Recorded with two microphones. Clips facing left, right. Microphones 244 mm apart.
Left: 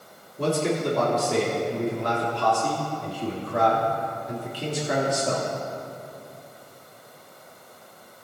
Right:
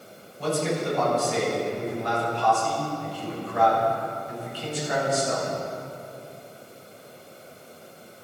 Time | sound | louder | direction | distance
0.4 | a man speaking | left 2 dB | 80° left | 3 m